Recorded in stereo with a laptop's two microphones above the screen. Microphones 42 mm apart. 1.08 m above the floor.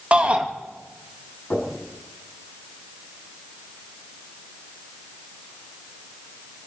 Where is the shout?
35° right (ahead or behind), 1.8 m.